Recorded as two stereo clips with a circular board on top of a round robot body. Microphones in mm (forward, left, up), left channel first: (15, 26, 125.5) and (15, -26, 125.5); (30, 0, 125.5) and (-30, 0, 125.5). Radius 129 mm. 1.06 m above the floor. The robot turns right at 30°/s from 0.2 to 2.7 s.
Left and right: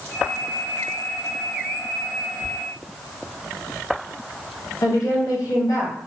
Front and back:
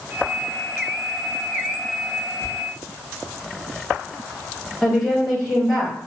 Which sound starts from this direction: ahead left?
Whispering, at 2.4 s.